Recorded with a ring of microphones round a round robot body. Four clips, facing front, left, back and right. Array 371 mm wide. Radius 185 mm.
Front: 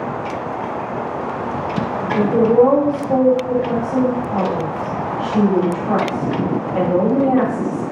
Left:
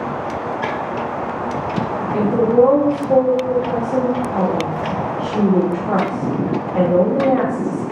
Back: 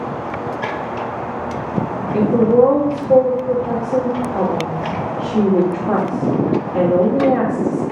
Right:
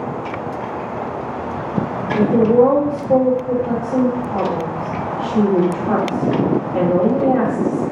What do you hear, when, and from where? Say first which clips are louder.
2.1 s a woman speaking: right 1 dB, back 1 dB; 165° right, 1.2 m